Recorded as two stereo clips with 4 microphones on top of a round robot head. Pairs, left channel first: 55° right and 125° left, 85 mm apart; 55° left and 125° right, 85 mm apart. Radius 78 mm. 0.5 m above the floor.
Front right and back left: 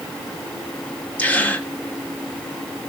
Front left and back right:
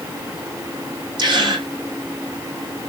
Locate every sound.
1.2 s a gasp: 125° right, 2.5 m